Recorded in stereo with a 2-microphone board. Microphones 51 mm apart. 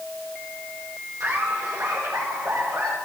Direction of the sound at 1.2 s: 75° right (ahead or behind).